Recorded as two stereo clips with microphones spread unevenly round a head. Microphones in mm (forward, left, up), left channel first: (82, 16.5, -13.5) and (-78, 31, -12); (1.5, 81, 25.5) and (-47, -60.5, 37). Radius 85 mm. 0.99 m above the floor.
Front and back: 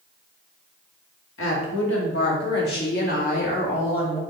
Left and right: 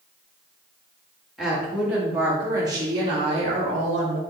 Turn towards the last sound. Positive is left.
turn(degrees=-70)